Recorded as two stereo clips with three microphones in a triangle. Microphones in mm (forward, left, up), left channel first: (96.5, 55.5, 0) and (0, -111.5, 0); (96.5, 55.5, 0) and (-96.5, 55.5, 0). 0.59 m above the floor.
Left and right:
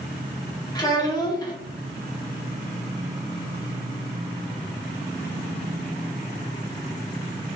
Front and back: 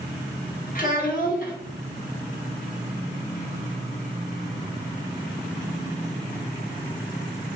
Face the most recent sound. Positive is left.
turn(degrees=0)